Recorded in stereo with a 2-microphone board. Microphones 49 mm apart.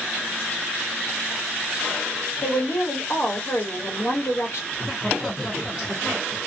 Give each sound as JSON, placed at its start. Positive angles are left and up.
{"t": 2.4, "sound": "a woman speaking", "side_deg": 60, "distance_m": 2.0}
{"t": 4.7, "sound": "laughter", "side_deg": 0, "distance_m": 1.0}